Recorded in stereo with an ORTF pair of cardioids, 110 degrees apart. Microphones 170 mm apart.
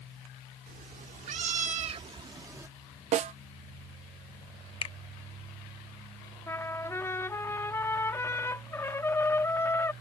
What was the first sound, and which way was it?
A cat meowing, 60° right.